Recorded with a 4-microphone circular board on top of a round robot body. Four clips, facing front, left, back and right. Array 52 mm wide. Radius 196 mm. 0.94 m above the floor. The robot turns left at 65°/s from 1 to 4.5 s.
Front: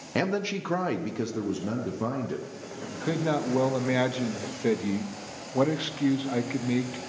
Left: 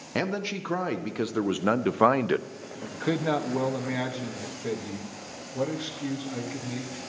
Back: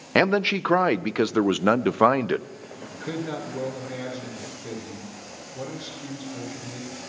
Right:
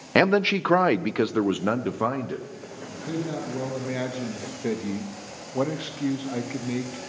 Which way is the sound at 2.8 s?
85° left.